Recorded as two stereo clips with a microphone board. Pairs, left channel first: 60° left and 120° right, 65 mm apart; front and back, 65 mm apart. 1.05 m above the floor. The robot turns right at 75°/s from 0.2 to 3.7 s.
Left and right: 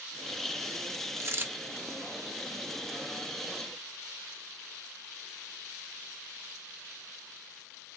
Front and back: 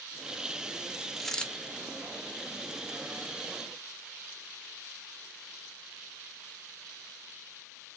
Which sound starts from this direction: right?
A dropped coin, at 1.2 s.